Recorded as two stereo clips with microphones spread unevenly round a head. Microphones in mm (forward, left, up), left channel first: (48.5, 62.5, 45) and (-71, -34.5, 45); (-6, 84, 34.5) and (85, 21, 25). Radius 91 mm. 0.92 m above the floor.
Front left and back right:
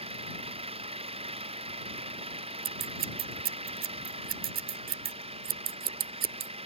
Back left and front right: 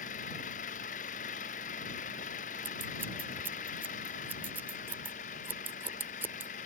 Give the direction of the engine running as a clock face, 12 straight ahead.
6 o'clock.